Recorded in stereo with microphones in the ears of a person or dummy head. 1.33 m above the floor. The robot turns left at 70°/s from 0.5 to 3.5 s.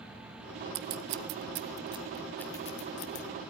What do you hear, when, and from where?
0.8 s scissors: 70° right (ahead or behind), 0.5 m; by 3.2 s 65° left (ahead or behind), 0.5 m